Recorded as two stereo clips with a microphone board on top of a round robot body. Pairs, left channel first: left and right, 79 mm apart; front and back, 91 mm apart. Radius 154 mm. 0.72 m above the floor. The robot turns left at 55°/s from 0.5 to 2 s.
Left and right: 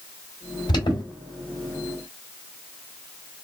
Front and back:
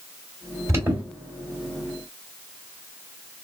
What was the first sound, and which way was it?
An alarm, 125° left.